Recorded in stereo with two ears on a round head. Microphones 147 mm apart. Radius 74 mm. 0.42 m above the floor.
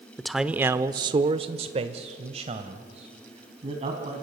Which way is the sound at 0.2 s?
5° left (ahead or behind).